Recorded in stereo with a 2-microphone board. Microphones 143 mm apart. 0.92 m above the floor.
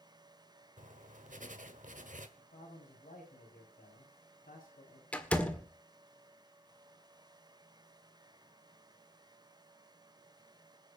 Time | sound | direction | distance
0.8 | writing | 65° right (ahead or behind) | 1.3 m
2.4 | a man speaking | 85° left | 6 m
5.1 | a door slam | 10° left (ahead or behind) | 1.6 m